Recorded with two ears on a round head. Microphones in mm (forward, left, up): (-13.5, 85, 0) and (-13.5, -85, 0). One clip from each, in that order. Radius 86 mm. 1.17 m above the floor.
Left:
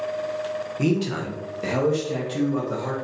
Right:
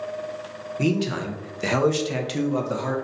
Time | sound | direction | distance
0.8 | a man speaking | 5° right (ahead or behind) | 0.8 m